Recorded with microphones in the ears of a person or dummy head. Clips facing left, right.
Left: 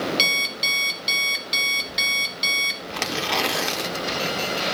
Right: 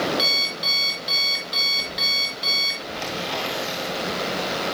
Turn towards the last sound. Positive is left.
turn(degrees=70)  # may be behind; listen again after turning